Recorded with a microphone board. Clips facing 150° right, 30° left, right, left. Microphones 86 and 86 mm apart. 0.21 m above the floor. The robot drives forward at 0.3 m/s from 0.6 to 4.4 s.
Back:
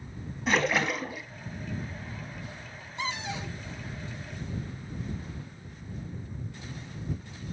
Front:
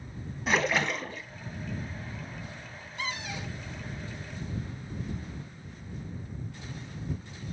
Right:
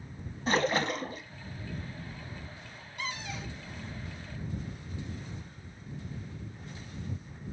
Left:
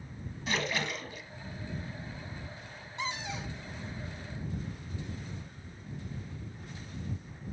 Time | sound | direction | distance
0.5 | a splash | 60° right | 0.8 m
3.0 | a cupboard door | 150° left | 1.0 m